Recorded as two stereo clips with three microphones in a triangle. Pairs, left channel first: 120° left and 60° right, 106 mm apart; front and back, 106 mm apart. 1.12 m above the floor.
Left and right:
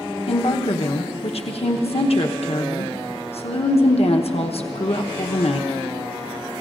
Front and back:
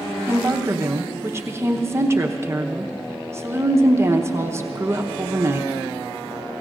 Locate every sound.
0.3 s a woman speaking: 115° left, 0.9 m